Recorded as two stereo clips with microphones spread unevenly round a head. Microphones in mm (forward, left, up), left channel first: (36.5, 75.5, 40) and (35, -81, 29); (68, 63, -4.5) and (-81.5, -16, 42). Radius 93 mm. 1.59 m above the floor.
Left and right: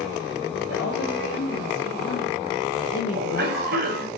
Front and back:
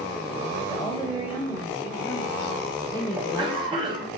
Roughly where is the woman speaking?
Left.